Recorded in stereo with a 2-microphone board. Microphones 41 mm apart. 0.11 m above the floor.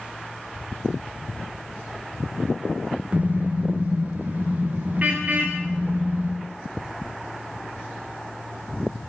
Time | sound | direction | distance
3.1 | a car horn | 30° right (ahead or behind) | 5 m